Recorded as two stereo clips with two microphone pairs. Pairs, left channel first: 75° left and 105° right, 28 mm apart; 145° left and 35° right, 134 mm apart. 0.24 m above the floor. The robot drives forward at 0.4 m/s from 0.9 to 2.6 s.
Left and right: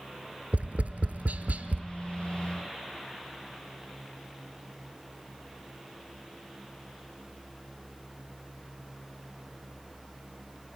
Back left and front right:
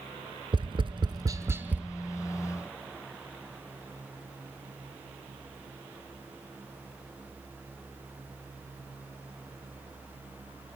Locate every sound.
0.5 s tapping: 80° right, 0.6 m; by 1.9 s 115° right, 0.7 m